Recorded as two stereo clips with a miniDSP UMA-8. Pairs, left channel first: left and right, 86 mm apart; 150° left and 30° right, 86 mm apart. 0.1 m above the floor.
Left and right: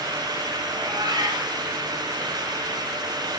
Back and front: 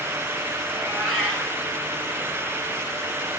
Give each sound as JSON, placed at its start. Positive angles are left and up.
{"t": 0.7, "sound": "a cat meowing", "azimuth_deg": -115, "distance_m": 9.5}